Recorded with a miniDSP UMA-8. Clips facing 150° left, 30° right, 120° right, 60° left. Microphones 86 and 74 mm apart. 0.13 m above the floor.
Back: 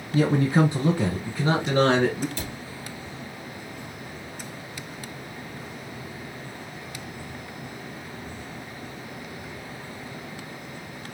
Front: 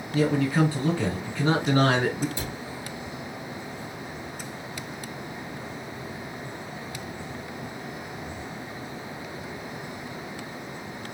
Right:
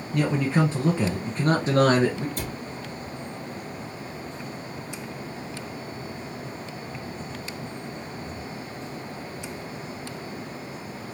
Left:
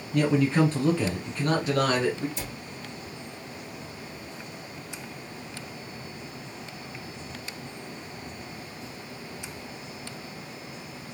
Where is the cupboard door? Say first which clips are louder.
Front 1 dB, right 5 dB; 100° right, 3.5 m.